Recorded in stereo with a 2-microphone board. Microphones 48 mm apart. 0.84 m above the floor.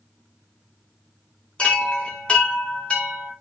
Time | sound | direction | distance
1.6 | a chime | 25° left (ahead or behind) | 2 m